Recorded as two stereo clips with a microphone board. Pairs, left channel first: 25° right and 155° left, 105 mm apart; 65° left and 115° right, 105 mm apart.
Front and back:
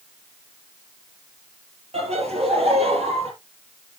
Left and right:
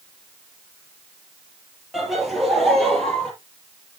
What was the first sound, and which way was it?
Laughter, 160° left.